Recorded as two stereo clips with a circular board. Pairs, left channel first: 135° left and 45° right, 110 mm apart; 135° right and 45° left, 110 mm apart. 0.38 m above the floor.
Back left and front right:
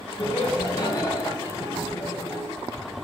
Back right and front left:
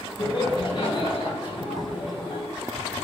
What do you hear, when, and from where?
0.2 s laughter: 175° right, 3.5 m; by 2.4 s 170° right, 2 m